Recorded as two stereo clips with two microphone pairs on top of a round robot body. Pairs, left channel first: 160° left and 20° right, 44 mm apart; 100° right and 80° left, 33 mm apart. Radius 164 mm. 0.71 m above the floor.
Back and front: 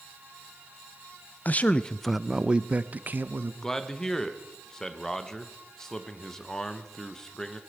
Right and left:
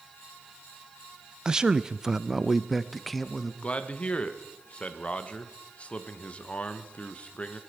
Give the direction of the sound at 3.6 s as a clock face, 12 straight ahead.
4 o'clock.